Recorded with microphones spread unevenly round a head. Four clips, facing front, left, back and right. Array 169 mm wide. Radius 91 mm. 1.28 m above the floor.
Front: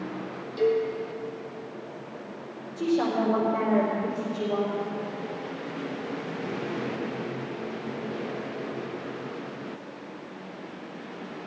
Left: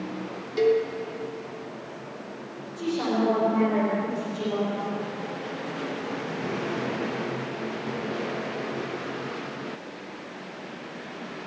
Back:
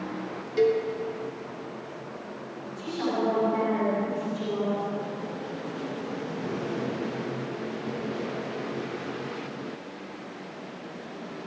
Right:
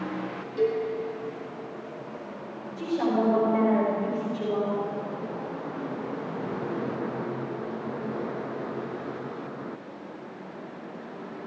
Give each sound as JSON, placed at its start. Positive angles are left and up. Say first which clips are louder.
{"t": 0.6, "sound": "a cowbell", "louder": "left 4 dB, back 1 dB", "azimuth_deg": 125, "distance_m": 3.0}
{"t": 2.8, "sound": "a woman speaking", "louder": "even, front 4 dB", "azimuth_deg": -5, "distance_m": 4.5}